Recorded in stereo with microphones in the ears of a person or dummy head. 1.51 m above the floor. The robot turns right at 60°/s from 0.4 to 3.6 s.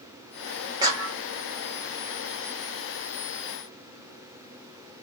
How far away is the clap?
About 1.0 m.